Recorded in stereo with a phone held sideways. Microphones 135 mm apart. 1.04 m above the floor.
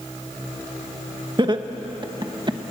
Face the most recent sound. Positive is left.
turn(degrees=-35)  # may be behind; listen again after turning